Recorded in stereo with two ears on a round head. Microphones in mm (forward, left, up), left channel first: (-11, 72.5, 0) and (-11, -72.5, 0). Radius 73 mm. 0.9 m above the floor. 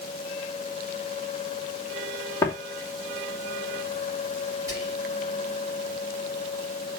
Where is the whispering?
20° right (ahead or behind), 5.5 m.